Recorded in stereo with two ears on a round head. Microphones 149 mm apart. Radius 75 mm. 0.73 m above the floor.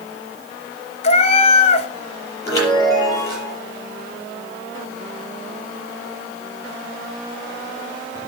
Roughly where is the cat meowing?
Left.